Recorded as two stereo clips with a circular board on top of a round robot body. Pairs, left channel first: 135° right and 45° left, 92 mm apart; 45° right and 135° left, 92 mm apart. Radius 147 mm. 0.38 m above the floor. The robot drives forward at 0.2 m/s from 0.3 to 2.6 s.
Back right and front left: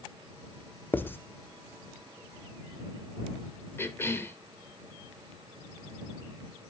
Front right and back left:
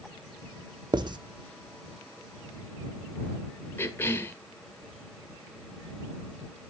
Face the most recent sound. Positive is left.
turn(degrees=-90)